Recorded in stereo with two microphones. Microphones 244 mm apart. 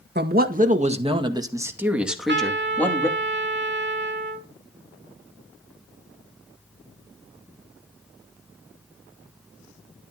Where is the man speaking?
45° right (ahead or behind), 1.8 m; by 3.1 s 10° left (ahead or behind), 2.5 m.